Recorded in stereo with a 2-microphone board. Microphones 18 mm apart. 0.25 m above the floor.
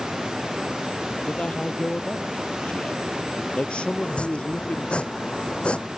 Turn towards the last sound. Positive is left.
turn(degrees=80)